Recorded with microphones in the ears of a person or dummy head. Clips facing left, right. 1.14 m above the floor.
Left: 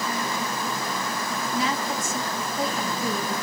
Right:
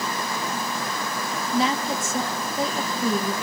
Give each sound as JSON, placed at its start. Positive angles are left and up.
{"t": 1.5, "sound": "a woman speaking", "side_deg": -30, "distance_m": 1.4}